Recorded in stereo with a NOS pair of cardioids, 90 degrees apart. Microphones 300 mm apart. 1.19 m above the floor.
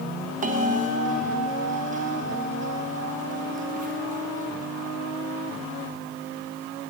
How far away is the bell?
About 1.1 m.